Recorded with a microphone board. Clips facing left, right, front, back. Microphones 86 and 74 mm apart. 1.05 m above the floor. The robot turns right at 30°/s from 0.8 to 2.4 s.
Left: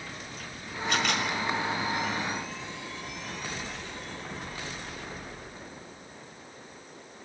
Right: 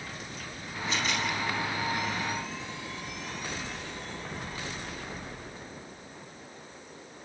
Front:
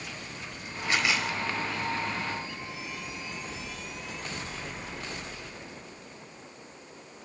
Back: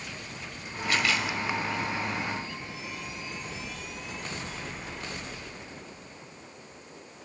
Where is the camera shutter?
65° left, 5 m; by 1.3 s 75° left, 5 m.